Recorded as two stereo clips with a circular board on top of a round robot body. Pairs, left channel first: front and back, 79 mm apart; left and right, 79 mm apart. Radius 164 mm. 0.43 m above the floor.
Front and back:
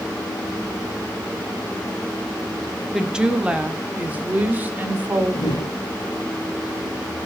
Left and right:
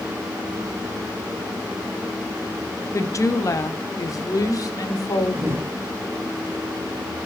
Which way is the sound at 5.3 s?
30° right.